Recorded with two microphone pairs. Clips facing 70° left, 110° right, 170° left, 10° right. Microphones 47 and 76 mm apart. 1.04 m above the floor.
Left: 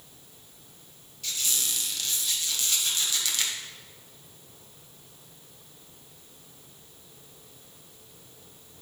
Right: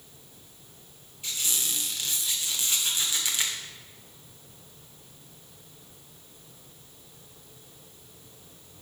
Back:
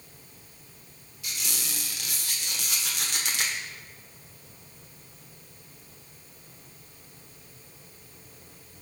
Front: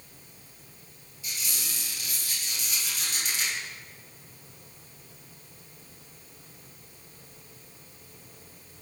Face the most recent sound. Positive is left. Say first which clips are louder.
# even, back 1 dB
turn(degrees=180)